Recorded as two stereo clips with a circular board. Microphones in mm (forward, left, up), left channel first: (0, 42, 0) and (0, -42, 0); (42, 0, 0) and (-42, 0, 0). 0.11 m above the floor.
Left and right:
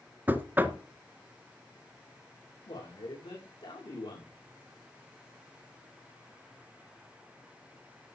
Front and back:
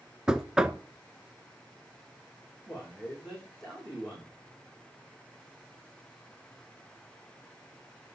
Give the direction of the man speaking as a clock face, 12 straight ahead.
9 o'clock.